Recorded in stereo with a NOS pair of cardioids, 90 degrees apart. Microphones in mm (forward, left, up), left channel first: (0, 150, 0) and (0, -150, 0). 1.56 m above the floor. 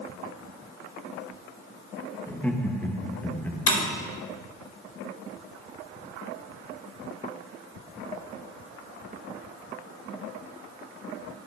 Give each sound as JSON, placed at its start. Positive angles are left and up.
{"t": 2.3, "sound": "laughter", "azimuth_deg": 5, "distance_m": 1.9}
{"t": 3.7, "sound": "breaking glass", "azimuth_deg": 45, "distance_m": 4.5}